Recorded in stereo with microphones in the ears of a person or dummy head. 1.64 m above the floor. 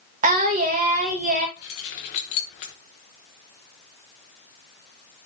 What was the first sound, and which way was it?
Singing, 40° right (ahead or behind).